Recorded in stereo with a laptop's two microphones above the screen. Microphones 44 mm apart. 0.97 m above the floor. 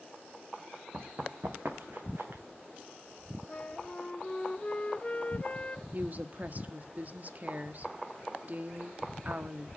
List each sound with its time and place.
0.9 s running footsteps: 65° right (ahead or behind), 2.5 m; by 2.4 s 55° right (ahead or behind), 3.5 m
3.5 s a flute: 25° left (ahead or behind), 1.0 m
5.9 s a woman speaking: 40° right (ahead or behind), 1.4 m